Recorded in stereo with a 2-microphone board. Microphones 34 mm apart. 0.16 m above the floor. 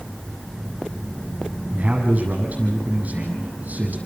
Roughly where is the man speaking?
Right.